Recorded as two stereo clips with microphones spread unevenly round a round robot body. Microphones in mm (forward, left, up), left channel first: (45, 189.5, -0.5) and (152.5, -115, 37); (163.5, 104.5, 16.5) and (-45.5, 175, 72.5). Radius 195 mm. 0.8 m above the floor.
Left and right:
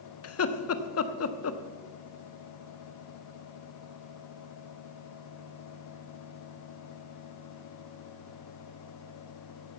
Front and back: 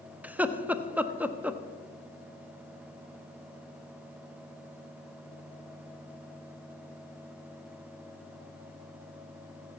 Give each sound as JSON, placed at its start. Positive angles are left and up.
{"t": 0.2, "sound": "laughter", "azimuth_deg": 70, "distance_m": 1.1}